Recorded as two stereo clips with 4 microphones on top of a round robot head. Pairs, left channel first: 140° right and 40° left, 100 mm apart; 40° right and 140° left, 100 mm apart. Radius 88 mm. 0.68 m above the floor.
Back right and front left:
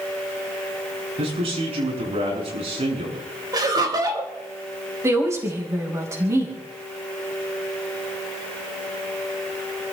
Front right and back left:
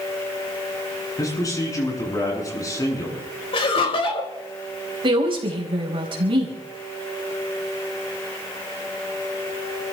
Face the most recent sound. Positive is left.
turn(degrees=105)